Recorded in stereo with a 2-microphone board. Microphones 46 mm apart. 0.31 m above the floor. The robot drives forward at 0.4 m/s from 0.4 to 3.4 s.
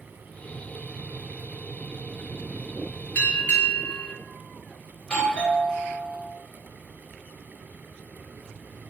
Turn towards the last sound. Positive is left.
turn(degrees=25)  # may be behind; listen again after turning